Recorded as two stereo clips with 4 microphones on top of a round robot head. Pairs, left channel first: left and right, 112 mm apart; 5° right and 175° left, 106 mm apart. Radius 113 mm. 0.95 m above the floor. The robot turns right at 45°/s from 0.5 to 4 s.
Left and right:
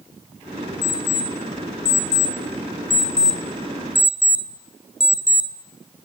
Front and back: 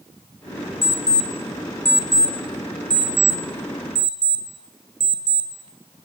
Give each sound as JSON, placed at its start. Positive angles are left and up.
{"t": 0.8, "sound": "an alarm clock", "azimuth_deg": 35, "distance_m": 3.5}